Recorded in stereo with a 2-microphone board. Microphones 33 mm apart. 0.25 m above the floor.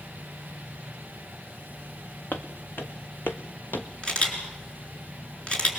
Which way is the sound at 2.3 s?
70° left (ahead or behind).